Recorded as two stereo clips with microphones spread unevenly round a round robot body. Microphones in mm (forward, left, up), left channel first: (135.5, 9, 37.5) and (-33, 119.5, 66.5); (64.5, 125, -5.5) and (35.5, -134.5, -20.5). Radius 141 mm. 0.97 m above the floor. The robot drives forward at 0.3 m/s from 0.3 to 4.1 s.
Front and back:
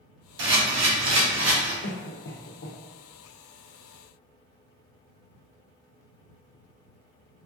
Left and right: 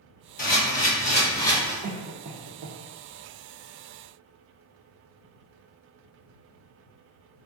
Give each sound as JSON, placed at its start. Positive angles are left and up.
{"t": 0.4, "sound": "a camera shutter", "azimuth_deg": 140, "distance_m": 0.9}
{"t": 1.8, "sound": "a cough", "azimuth_deg": -50, "distance_m": 0.6}